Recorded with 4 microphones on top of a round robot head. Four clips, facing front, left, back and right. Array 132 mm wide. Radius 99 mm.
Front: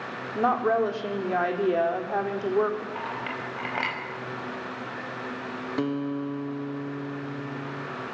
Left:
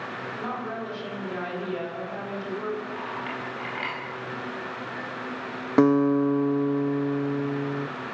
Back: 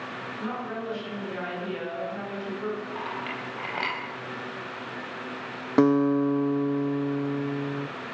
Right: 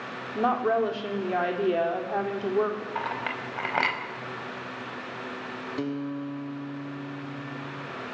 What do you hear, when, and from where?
0.3 s a woman speaking: 35° right, 4 m
3.0 s a clink: 90° right, 5.5 m
5.8 s a guitar: 125° left, 1.0 m